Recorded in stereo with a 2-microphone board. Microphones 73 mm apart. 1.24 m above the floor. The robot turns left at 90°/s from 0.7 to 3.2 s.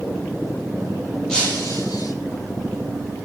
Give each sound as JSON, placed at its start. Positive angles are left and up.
{"t": 1.3, "sound": "breaking glass", "azimuth_deg": 170, "distance_m": 9.0}